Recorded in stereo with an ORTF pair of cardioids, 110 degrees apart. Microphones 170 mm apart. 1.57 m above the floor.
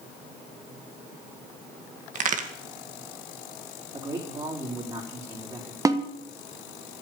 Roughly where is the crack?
Ahead right.